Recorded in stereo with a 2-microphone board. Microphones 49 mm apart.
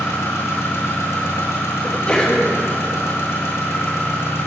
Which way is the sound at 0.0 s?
70° left (ahead or behind).